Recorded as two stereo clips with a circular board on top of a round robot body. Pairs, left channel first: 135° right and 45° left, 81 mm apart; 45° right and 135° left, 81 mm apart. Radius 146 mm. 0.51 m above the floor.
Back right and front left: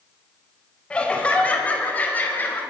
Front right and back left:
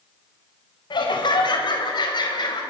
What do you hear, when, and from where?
0.9 s laughter: 60° right, 4 m; by 2.6 s 70° right, 4.5 m